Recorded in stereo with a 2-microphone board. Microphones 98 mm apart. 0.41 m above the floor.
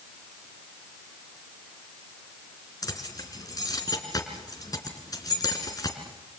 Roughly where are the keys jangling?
Left.